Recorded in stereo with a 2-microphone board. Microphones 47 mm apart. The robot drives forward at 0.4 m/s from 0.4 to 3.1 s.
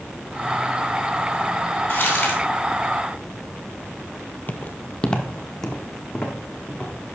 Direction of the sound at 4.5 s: 40° left (ahead or behind).